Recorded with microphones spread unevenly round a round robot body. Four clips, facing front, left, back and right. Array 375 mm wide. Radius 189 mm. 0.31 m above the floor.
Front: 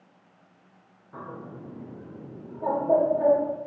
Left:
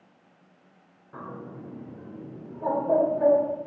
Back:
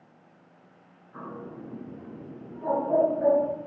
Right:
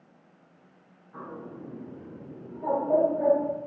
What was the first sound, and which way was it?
A bird, 50° left.